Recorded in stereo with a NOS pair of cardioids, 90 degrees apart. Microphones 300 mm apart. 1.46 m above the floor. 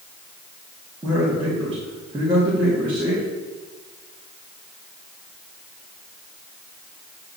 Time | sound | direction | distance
1.0 | a man speaking | 15° right | 2.5 m